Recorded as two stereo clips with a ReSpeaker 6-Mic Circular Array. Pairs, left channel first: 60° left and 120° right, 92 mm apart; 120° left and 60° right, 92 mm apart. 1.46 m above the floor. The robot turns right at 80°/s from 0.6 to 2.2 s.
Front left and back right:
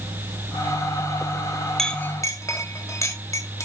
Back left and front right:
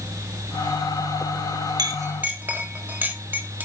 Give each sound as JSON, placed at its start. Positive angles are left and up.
{"t": 1.8, "sound": "a clink", "azimuth_deg": -25, "distance_m": 1.5}